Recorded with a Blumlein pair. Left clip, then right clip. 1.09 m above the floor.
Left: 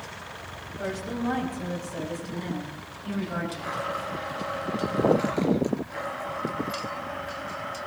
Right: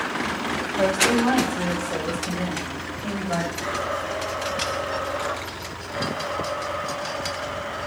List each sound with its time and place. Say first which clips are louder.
0.8 s a woman speaking: right 12 dB; 50° right, 3.5 m; by 3.5 s 30° right, 4.5 m
3.6 s a blender: right 4 dB; 15° right, 4.5 m